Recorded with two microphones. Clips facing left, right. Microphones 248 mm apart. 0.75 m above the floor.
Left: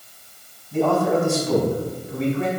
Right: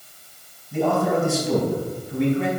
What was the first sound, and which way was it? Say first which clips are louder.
A man speaking: left 2 dB; 5° right (ahead or behind).